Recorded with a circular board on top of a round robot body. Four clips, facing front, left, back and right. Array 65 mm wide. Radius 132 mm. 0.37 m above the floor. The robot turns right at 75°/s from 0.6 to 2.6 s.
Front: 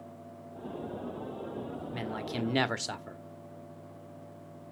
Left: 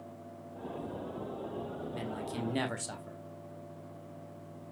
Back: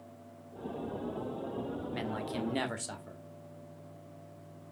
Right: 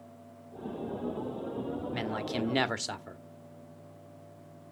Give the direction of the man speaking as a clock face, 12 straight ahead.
3 o'clock.